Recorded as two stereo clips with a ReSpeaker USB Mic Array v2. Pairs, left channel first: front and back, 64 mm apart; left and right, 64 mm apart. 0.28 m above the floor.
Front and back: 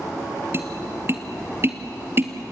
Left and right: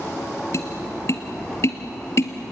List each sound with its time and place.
0.5 s tapping: 130° left, 1.7 m